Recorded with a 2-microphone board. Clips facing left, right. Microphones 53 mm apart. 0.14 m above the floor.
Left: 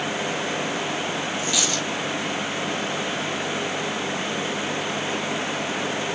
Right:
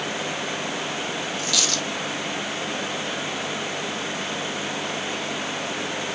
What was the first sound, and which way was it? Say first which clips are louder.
A dropped coin: left 1 dB; 20° left (ahead or behind).